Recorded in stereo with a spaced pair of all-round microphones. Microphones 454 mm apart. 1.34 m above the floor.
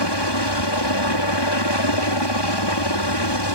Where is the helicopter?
60° left (ahead or behind).